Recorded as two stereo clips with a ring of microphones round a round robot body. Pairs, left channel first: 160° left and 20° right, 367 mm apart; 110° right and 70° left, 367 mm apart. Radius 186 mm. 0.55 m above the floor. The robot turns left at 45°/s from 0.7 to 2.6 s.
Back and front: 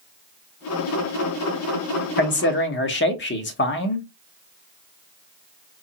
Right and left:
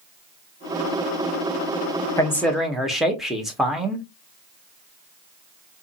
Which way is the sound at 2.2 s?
175° left.